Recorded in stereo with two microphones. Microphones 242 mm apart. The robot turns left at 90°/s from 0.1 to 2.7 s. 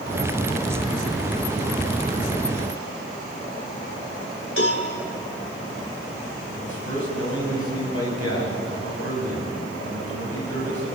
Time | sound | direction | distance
4.6 | a cowbell | 60° left (ahead or behind) | 3.5 m
6.5 | a man speaking | 80° right | 7.5 m